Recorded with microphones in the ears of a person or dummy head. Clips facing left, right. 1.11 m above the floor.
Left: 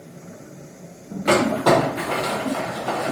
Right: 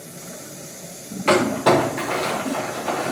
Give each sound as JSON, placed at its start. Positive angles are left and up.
{"t": 1.3, "sound": "crumpling", "side_deg": -15, "distance_m": 0.7}